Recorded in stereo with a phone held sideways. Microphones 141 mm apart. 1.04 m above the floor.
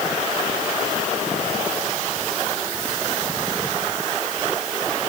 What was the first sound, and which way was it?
Only background noise.